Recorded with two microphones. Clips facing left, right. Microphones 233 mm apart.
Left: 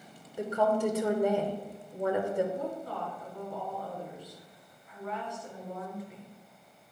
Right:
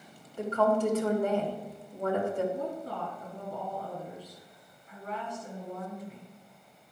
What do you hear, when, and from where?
0.4 s a woman speaking: 15° left (ahead or behind), 1.3 m
2.5 s a woman speaking: 35° right (ahead or behind), 3.5 m